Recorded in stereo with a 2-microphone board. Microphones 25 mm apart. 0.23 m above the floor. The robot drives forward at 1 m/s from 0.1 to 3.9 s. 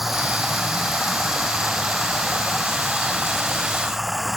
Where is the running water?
5° right (ahead or behind).